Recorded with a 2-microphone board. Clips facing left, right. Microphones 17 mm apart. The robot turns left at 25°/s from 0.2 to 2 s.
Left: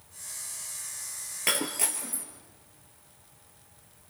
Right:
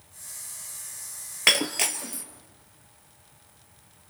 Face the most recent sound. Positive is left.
turn(degrees=-55)  # may be behind; listen again after turning